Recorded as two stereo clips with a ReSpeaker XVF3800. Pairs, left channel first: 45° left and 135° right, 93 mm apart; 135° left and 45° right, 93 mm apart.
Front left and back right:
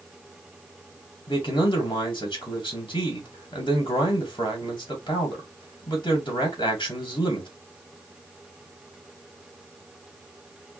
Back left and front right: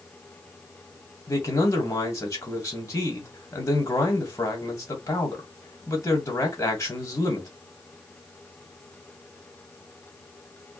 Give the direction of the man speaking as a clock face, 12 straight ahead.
9 o'clock.